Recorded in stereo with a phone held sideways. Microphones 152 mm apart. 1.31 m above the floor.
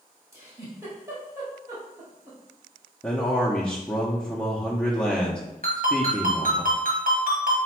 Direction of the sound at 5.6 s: 65° right (ahead or behind).